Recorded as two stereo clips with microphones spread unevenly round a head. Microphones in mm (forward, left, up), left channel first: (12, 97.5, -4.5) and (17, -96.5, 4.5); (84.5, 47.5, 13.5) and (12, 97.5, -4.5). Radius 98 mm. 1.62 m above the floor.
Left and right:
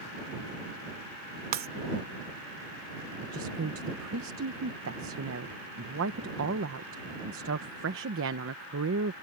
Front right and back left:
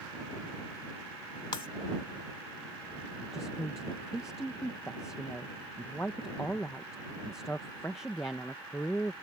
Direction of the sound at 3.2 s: 105° right.